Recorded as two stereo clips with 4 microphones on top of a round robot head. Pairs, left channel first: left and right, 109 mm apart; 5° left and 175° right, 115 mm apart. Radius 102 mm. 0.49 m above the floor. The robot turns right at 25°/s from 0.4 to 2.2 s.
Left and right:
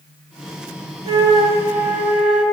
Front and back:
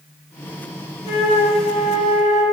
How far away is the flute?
About 2.5 m.